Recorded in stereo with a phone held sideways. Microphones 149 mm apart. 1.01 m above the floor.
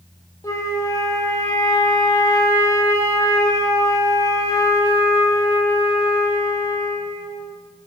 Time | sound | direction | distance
0.4 | a flute | 20° left (ahead or behind) | 1.0 m